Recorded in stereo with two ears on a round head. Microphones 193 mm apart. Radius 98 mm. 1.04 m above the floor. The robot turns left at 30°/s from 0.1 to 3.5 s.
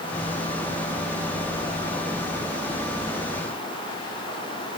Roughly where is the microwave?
I don't hear a microwave.